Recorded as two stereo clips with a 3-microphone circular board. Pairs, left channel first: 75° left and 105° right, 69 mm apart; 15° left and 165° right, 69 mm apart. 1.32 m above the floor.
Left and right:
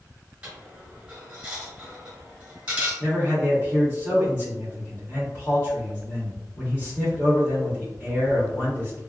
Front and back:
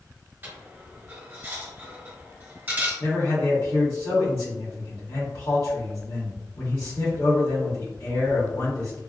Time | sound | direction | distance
0.4 | a dropped coin | 150° right | 1.4 m
3.0 | a man speaking | 30° left | 1.4 m